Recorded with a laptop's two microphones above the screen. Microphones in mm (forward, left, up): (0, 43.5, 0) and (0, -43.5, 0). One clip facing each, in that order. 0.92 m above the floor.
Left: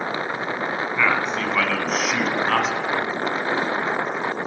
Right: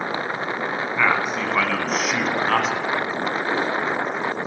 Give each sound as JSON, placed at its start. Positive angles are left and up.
{"t": 0.9, "sound": "a man speaking", "side_deg": -10, "distance_m": 8.0}